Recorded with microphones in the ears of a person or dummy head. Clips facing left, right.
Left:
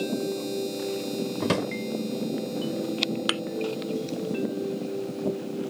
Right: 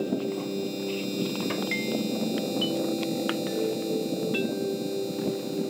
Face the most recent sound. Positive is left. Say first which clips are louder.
# right 2 dB
turn(degrees=45)  # may be behind; listen again after turning